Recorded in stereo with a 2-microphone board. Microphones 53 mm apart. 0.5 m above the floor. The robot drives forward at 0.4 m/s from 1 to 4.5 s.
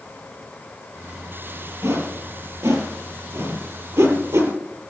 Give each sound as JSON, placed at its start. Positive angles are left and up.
{"t": 1.8, "sound": "a whoosh", "side_deg": -75, "distance_m": 4.0}